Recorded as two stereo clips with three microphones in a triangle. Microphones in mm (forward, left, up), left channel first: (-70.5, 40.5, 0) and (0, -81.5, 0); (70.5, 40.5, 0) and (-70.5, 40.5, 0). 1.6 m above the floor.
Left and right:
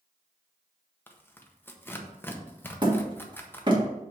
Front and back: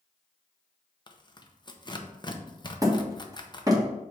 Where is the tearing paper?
50° left, 0.7 m.